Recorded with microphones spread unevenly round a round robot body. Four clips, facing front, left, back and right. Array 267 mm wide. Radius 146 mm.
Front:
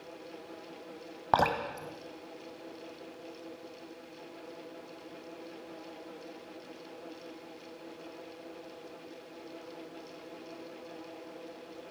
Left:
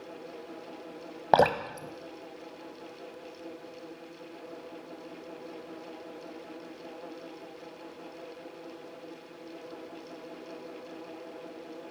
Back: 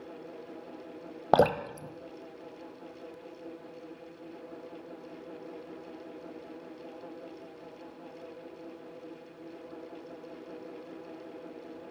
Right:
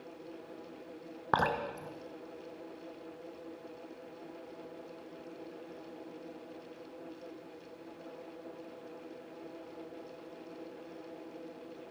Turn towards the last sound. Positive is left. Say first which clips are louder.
# left 8 dB, back 4 dB
turn(degrees=165)